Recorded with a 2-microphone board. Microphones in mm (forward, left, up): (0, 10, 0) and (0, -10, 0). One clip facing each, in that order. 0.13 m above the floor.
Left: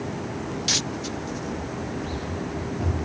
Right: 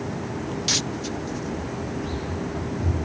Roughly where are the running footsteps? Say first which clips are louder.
Right 1 dB; left.